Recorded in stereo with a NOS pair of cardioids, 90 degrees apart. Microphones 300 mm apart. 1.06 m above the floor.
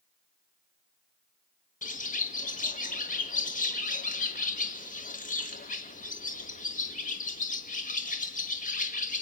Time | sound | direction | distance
1.8 | a bird | 25° left | 1.3 m